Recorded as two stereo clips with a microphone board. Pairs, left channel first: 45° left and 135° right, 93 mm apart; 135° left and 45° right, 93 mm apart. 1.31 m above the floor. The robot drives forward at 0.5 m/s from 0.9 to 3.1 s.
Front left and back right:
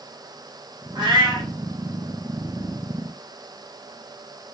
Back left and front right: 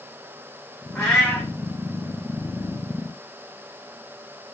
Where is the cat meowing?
145° right, 1.6 m; by 1.5 s 150° right, 1.8 m.